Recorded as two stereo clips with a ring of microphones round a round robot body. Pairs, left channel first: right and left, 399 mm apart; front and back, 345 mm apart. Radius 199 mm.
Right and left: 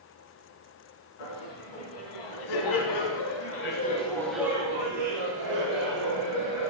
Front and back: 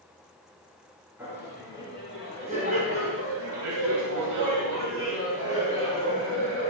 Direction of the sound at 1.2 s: 95° right.